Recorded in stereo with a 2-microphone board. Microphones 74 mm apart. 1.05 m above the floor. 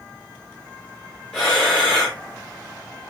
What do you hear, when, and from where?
0.0 s an insect: 20° left (ahead or behind), 1.6 m
1.3 s breathing: centre (ahead or behind), 2 m